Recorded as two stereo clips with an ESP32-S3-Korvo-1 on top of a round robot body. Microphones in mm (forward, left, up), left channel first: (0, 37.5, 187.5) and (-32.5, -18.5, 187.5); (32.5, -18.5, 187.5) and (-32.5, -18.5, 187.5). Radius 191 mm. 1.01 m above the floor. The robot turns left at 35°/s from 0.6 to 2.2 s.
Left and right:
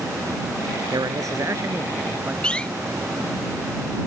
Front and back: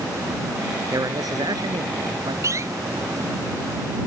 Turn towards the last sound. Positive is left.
turn(degrees=135)